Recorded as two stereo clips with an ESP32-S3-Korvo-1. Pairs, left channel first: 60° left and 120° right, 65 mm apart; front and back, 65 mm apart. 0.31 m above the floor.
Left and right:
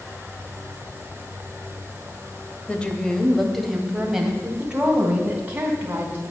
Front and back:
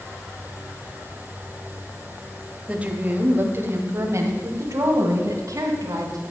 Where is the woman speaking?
120° left, 1.5 m; by 6.2 s straight behind, 3 m.